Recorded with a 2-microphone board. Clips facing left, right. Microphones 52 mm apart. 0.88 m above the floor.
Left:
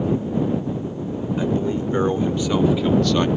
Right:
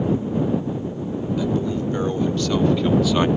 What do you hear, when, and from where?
1.4 s a man speaking: 35° left (ahead or behind); by 3.3 s 15° right (ahead or behind)